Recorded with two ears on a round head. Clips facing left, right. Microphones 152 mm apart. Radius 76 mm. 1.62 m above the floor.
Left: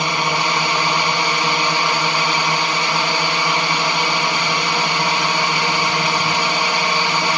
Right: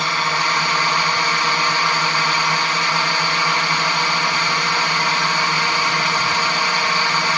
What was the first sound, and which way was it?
A drone, 15° left (ahead or behind).